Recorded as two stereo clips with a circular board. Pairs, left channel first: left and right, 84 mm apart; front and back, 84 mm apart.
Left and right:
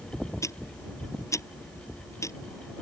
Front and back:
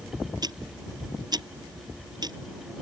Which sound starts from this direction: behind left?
Ticking, at 0.4 s.